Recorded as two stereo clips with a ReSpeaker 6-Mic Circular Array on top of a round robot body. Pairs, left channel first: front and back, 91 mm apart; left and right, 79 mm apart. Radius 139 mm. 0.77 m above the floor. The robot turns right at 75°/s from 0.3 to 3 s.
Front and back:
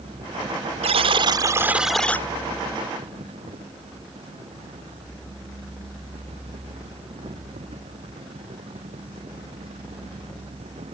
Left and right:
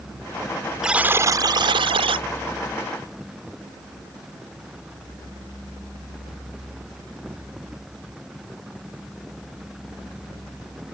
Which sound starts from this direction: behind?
A buzzer, at 0.8 s.